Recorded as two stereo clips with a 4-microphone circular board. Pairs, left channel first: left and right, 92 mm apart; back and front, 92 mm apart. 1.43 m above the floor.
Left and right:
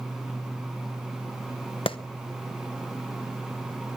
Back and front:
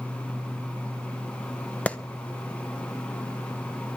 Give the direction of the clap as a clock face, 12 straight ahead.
8 o'clock.